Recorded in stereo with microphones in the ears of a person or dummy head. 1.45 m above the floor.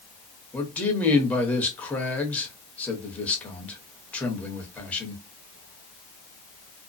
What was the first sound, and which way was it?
A man speaking, 5° left (ahead or behind).